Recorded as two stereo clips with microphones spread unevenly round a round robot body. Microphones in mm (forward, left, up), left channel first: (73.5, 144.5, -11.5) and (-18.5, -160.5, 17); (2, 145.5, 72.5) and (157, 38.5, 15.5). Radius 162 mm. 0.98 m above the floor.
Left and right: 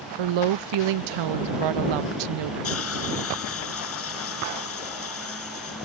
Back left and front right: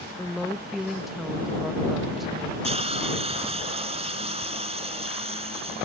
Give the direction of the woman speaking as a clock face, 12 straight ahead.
4 o'clock.